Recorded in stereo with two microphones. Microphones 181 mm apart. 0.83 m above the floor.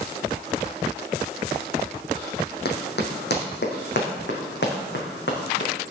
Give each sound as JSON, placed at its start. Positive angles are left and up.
{"t": 2.6, "sound": "running footsteps", "side_deg": 70, "distance_m": 2.0}